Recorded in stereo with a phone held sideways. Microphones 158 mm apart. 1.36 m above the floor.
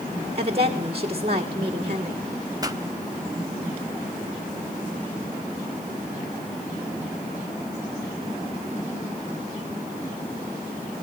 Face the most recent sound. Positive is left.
turn(degrees=-25)  # may be behind; listen again after turning